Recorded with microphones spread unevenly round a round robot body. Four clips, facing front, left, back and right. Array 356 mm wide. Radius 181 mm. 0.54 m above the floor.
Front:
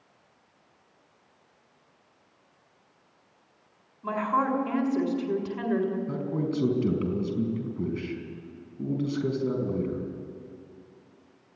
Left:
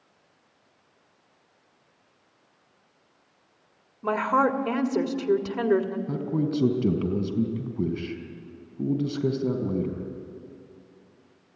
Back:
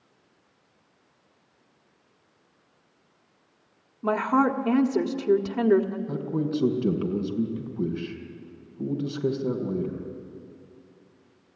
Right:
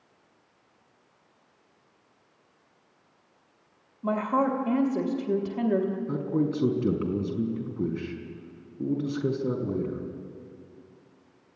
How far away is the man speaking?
About 4 m.